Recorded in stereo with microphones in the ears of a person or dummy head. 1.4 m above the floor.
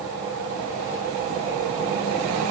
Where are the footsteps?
I don't hear footsteps.